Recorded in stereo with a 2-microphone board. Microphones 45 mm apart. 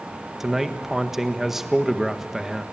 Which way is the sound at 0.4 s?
5° right (ahead or behind).